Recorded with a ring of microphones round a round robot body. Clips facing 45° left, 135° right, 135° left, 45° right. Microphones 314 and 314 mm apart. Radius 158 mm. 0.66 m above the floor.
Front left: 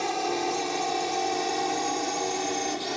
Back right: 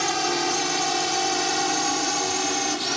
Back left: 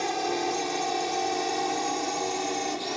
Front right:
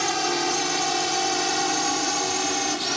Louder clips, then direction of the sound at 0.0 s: Back right 2 dB, front right 2 dB; 90° right.